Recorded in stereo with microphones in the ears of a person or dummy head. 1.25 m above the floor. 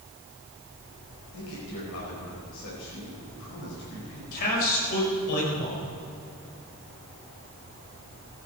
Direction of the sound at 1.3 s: 75° left (ahead or behind).